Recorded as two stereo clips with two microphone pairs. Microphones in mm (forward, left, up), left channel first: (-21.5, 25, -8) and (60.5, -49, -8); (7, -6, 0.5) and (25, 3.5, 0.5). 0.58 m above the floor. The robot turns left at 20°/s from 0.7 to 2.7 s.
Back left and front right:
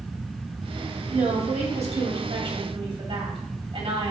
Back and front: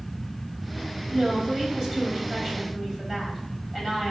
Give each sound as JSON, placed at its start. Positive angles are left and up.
{"t": 1.1, "sound": "a woman speaking", "azimuth_deg": -45, "distance_m": 2.5}